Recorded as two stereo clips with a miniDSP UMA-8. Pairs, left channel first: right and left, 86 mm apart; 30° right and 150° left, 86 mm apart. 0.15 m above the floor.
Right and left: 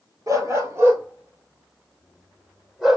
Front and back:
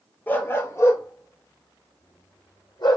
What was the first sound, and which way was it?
A dog barking, 40° left.